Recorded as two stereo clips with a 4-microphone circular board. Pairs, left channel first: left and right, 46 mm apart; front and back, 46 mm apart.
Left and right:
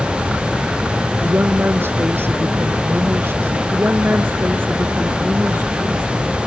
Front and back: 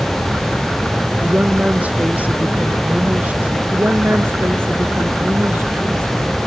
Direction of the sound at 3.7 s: 135° right.